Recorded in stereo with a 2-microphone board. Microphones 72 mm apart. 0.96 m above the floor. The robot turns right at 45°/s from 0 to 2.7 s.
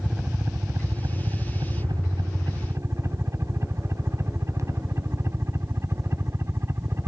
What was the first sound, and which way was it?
A helicopter, 15° right (ahead or behind).